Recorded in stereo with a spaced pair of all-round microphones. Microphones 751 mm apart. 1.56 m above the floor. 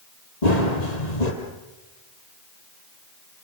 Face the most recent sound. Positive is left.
turn(degrees=65)  # may be behind; listen again after turning